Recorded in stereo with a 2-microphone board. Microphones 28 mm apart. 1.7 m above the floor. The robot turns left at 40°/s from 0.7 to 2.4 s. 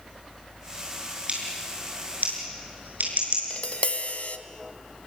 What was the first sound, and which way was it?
Scissors, 40° right (ahead or behind).